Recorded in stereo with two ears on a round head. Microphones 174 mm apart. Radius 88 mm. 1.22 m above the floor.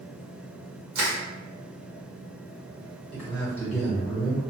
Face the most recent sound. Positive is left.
turn(degrees=10)  # may be behind; listen again after turning